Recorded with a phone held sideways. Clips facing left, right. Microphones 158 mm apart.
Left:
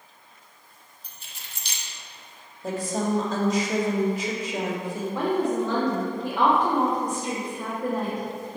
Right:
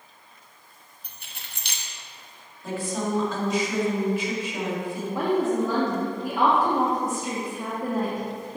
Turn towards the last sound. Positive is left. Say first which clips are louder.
# right 1 dB
turn(degrees=-10)  # may be behind; listen again after turning